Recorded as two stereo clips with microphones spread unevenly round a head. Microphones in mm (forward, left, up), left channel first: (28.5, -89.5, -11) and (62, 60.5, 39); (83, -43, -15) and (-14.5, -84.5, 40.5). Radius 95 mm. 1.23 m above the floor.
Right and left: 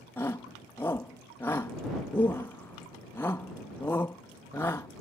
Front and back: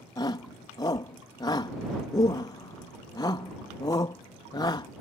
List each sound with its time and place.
0.2 s a shout: 30° right